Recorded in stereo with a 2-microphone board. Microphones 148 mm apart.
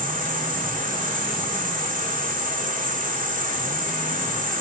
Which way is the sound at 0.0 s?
65° right (ahead or behind).